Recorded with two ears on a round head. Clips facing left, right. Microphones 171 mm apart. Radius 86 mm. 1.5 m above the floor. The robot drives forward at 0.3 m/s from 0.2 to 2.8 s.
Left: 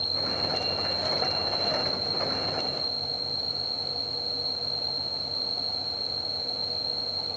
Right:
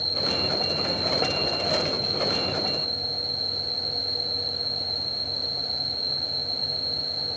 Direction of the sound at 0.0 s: 40° right (ahead or behind).